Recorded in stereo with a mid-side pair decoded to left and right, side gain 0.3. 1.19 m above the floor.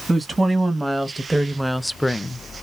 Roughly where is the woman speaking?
Ahead right.